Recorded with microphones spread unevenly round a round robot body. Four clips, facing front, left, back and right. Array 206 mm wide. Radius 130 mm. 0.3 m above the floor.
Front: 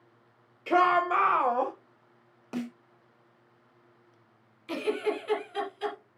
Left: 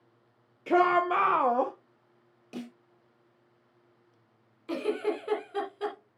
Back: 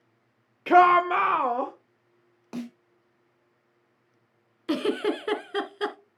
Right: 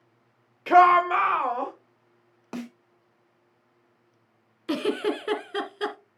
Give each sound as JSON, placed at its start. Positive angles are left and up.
{"t": 0.7, "sound": "a shout", "azimuth_deg": -125, "distance_m": 1.1}
{"t": 2.5, "sound": "a snare drum", "azimuth_deg": -75, "distance_m": 4.0}
{"t": 4.7, "sound": "a giggle", "azimuth_deg": -120, "distance_m": 2.0}